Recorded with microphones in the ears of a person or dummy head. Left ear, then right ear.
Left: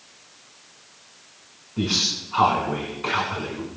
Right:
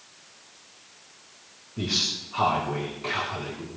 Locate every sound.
1.8 s a man speaking: 50° left (ahead or behind), 4 m